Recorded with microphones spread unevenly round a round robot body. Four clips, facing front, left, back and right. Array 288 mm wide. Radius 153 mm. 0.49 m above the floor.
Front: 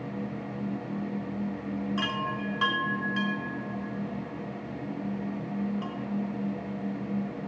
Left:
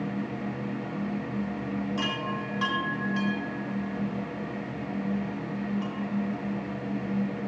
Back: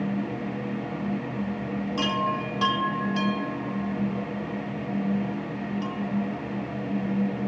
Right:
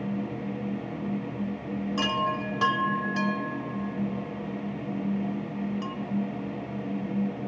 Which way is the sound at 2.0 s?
105° right.